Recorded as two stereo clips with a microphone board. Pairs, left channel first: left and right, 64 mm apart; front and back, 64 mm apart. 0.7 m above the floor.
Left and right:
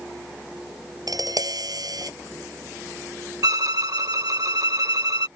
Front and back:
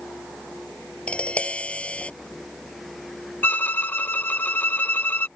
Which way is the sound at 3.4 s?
60° right.